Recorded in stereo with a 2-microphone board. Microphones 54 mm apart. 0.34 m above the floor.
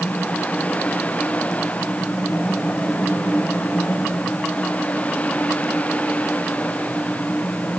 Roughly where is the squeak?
No squeak in this recording.